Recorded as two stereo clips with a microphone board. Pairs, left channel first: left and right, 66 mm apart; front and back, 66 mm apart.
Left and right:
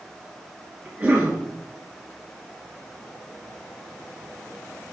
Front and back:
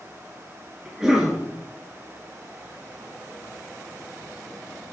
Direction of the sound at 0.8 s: 125° right.